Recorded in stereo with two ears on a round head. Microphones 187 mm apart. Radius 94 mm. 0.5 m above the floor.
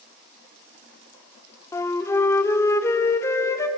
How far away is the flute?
About 1.2 m.